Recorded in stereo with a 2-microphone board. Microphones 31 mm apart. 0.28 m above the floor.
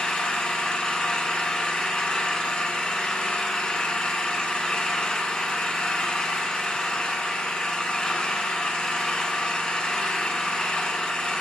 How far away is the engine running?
About 0.8 m.